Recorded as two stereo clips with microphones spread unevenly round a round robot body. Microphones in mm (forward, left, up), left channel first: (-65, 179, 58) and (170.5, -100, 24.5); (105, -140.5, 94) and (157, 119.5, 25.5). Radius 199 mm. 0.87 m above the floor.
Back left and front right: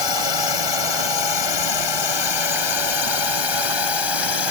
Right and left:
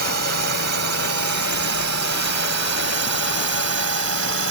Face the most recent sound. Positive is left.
turn(degrees=125)